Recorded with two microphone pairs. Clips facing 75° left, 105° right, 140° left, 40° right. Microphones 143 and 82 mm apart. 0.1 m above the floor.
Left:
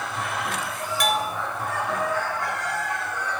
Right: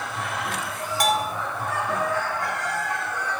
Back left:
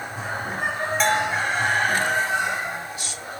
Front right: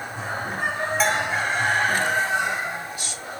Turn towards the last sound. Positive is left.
turn(degrees=-125)